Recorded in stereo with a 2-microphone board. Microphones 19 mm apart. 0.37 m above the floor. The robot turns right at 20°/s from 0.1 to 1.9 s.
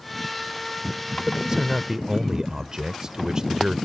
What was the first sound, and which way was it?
A man speaking, 30° right (ahead or behind).